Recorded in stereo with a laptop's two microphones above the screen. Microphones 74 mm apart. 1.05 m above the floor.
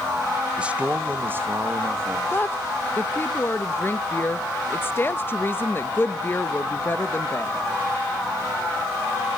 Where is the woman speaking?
30° left (ahead or behind), 0.8 m.